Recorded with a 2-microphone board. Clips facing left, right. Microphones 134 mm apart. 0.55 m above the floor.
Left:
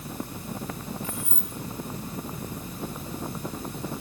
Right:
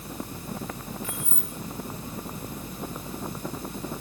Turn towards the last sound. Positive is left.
turn(degrees=35)  # may be behind; listen again after turning